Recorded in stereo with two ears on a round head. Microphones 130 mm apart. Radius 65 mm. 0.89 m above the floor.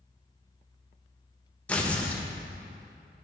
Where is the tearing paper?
10° left (ahead or behind), 0.6 m.